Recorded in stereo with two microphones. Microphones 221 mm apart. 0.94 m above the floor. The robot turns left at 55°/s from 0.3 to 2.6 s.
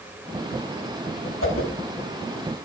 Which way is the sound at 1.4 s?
70° left (ahead or behind).